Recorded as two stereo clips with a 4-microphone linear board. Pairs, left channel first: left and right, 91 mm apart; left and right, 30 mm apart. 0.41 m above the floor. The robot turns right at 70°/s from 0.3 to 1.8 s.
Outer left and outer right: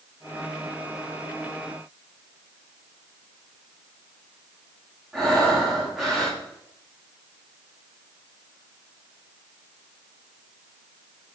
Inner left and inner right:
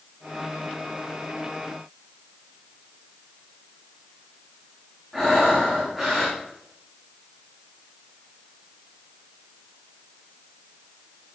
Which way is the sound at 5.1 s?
5° right (ahead or behind).